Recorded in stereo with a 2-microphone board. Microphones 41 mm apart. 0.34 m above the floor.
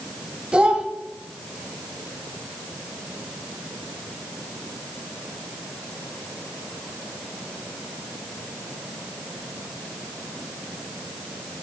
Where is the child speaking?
25° right (ahead or behind), 0.9 m.